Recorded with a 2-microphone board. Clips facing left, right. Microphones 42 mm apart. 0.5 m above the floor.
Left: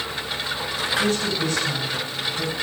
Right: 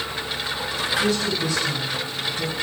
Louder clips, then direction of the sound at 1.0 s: Even; 45° left (ahead or behind).